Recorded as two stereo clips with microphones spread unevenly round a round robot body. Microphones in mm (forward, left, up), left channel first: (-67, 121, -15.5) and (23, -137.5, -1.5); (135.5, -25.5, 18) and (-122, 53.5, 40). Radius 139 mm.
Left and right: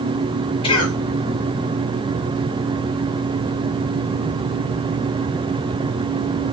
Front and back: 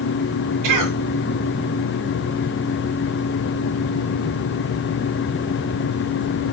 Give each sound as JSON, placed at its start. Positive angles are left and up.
{"t": 0.6, "sound": "a cough", "azimuth_deg": 180, "distance_m": 6.5}